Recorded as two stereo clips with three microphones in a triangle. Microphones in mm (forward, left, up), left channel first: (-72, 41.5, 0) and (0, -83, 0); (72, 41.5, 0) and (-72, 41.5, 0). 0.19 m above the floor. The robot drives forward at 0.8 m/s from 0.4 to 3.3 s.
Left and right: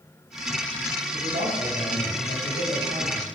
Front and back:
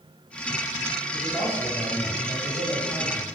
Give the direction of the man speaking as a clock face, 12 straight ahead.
2 o'clock.